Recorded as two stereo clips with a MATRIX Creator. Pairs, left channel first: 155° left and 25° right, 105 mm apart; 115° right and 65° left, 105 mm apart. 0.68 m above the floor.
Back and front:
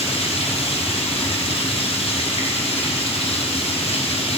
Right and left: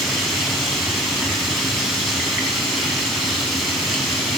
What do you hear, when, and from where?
0.0 s running water: 155° left, 2 m